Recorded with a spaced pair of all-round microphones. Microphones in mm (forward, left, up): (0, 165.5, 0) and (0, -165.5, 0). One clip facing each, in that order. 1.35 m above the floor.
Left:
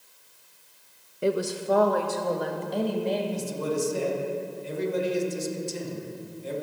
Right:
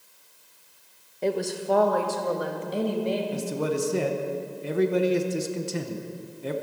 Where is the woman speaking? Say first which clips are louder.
Left 1 dB; 15° left (ahead or behind), 0.9 m; by 3.2 s 15° right (ahead or behind), 1.8 m.